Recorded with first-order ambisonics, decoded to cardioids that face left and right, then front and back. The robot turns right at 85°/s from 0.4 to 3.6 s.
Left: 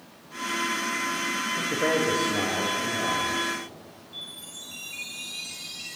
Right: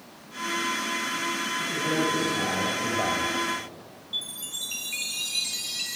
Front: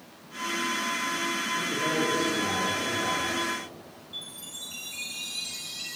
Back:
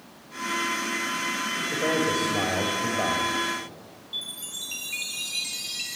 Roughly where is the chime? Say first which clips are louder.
Right 7 dB, back 6 dB; behind right.